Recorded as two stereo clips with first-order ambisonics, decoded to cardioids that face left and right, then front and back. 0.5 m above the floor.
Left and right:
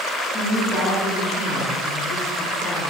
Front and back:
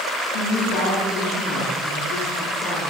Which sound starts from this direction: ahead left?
A woman speaking, at 0.3 s.